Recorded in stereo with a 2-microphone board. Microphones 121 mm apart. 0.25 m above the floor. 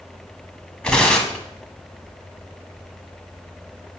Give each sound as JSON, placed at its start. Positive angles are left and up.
{"t": 0.8, "sound": "tearing paper", "side_deg": 5, "distance_m": 1.0}